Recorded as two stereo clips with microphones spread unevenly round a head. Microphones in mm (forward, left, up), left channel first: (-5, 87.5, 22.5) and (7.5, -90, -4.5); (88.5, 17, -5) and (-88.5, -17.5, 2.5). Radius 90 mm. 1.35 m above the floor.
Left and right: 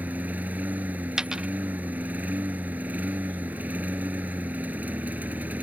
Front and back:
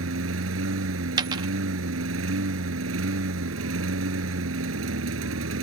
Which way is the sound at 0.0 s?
170° right.